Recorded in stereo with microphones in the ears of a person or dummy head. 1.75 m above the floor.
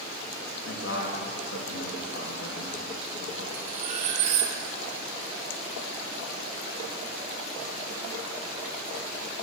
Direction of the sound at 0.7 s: 85° left.